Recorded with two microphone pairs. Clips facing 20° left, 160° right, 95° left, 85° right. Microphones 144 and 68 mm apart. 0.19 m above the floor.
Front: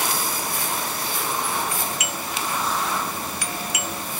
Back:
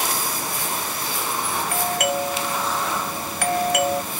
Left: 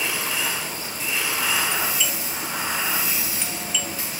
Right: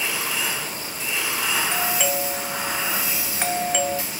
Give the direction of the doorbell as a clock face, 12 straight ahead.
4 o'clock.